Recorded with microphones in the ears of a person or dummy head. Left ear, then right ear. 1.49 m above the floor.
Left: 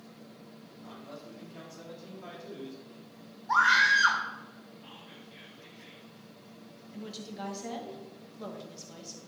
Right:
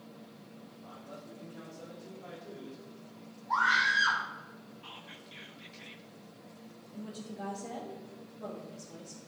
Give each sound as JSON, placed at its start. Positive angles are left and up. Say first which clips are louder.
{"t": 0.7, "sound": "a man speaking", "louder": "left 2 dB", "side_deg": 80, "distance_m": 4.0}
{"t": 3.5, "sound": "a scream", "louder": "left 4 dB", "side_deg": 60, "distance_m": 2.5}
{"t": 4.8, "sound": "whispering", "louder": "right 4 dB", "side_deg": -35, "distance_m": 1.7}
{"t": 6.9, "sound": "a woman speaking", "louder": "left 2 dB", "side_deg": 50, "distance_m": 2.0}